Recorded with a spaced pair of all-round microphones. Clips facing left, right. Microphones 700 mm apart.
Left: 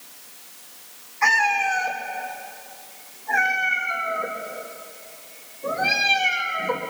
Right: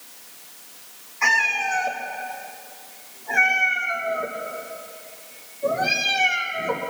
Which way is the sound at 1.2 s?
60° right (ahead or behind).